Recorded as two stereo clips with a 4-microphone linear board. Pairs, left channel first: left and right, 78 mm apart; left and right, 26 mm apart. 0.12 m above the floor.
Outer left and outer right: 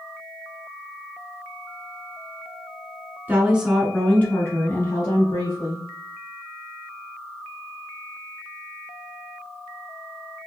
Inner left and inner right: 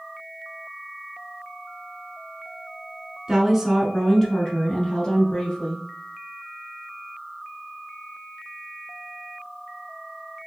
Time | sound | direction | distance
3.3 | a woman speaking | 25° right (ahead or behind) | 1.4 m